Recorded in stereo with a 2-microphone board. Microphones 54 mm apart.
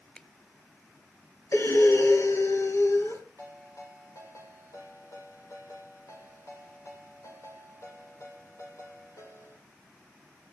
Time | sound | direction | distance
0.1 | a finger snap | 20° left (ahead or behind) | 0.8 m
1.5 | breathing | 65° left (ahead or behind) | 3 m
3.4 | a ringtone | 70° left (ahead or behind) | 8 m